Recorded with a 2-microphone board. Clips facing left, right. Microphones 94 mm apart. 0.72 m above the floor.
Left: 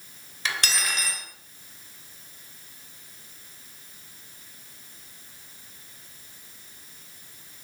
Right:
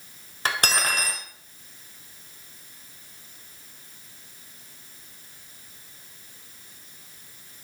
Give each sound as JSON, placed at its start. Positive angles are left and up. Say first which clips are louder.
{"t": 0.5, "sound": "cutlery clinking", "louder": "right 4 dB", "side_deg": -45, "distance_m": 2.0}